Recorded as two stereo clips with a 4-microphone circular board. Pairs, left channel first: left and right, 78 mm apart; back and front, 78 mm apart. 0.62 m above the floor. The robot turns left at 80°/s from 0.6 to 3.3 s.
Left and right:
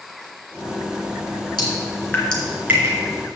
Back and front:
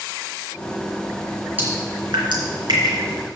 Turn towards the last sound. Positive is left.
turn(degrees=-70)